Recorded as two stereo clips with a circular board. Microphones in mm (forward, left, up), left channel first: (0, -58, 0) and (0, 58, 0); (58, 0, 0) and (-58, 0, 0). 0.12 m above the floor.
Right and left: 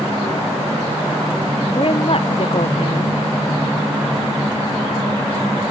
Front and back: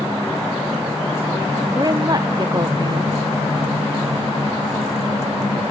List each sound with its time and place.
1.8 s a woman speaking: 125° right